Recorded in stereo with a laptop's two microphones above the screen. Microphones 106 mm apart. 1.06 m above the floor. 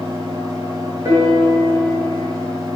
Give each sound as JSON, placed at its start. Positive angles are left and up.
{"t": 0.0, "sound": "a fan", "side_deg": -40, "distance_m": 1.6}
{"t": 1.1, "sound": "a piano", "side_deg": -30, "distance_m": 1.5}